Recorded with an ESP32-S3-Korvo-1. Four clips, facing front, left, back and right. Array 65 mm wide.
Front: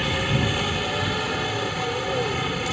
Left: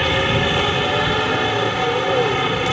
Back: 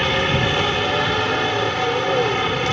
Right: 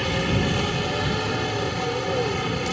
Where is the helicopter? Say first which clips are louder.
Left 6 dB, back 5 dB; 135° left.